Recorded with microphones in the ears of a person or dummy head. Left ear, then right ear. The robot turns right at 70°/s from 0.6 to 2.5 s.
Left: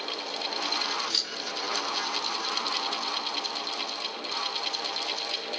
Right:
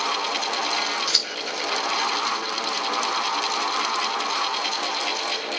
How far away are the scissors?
About 2.5 m.